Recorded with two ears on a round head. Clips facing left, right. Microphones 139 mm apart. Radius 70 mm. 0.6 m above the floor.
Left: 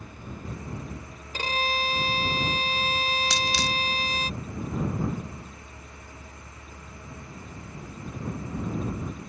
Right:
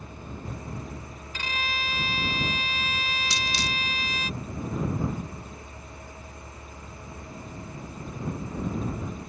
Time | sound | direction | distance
1.3 | a violin | 30° left (ahead or behind) | ?
3.3 | a dropped coin | 65° left (ahead or behind) | ?